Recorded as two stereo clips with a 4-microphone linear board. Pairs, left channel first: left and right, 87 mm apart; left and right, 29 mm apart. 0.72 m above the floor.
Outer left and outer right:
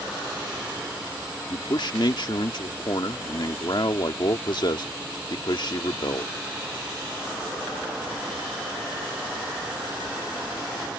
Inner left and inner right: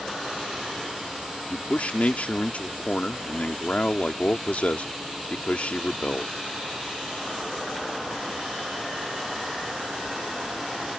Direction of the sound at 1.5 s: 60° left (ahead or behind).